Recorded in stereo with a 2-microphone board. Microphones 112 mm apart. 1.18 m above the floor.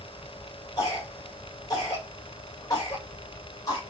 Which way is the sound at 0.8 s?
35° left (ahead or behind).